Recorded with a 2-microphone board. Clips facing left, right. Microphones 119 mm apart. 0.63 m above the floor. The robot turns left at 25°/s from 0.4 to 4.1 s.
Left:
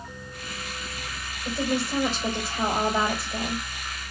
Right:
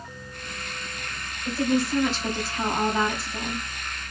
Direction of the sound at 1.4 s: 150° left.